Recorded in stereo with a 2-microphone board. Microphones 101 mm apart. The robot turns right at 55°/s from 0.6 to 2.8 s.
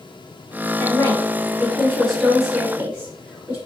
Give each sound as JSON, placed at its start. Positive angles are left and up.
{"t": 0.8, "sound": "a woman speaking", "side_deg": 20, "distance_m": 1.1}